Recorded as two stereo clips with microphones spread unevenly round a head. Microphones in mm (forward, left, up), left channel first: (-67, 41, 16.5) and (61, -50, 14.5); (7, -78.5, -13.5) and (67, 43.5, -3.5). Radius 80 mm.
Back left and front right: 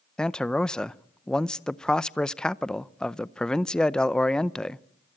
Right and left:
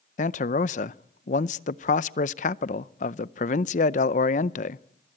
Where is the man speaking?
130° right, 0.6 m.